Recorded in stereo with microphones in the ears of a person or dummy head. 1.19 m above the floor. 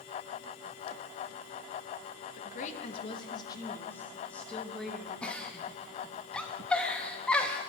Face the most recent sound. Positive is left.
turn(degrees=10)  # may be behind; listen again after turning